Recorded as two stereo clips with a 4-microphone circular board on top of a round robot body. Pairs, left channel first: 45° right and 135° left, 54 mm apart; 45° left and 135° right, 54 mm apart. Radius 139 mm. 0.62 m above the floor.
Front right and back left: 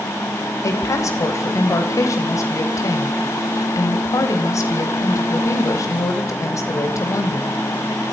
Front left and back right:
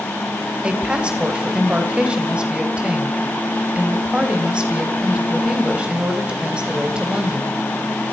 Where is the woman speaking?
65° right, 3.5 m.